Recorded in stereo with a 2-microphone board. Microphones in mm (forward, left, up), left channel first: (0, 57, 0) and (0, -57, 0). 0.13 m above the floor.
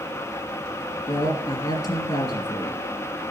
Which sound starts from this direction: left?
A woman speaking, at 1.1 s.